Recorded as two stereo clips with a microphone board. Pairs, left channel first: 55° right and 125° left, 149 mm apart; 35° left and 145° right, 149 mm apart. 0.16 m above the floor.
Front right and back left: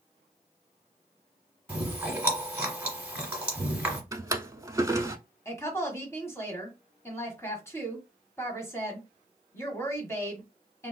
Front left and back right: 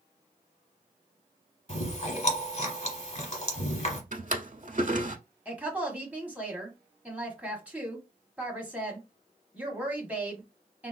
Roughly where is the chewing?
Ahead left.